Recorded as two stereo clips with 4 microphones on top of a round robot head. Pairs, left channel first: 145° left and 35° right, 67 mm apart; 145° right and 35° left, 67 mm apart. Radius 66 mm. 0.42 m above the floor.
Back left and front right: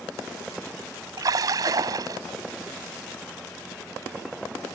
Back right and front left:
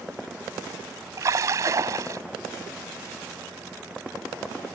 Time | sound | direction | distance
1.2 | a splash | 5° right | ?